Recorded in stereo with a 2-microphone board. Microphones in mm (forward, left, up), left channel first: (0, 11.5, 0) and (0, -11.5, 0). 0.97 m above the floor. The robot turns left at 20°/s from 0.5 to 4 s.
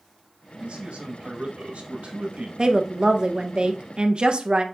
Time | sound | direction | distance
0.6 | a man speaking | 65° right | 1.1 m
2.6 | a woman speaking | 35° right (ahead or behind) | 0.5 m